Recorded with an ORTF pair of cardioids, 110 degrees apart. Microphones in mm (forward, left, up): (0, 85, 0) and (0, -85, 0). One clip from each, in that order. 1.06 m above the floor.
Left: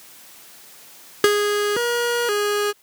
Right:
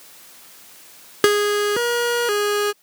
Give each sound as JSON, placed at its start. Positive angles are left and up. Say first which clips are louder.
{"t": 1.2, "sound": "a siren", "louder": "right 1 dB", "azimuth_deg": -20}